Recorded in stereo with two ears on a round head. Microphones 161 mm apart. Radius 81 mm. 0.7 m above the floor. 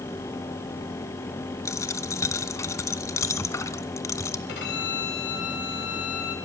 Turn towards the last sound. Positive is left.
turn(degrees=65)  # may be behind; listen again after turning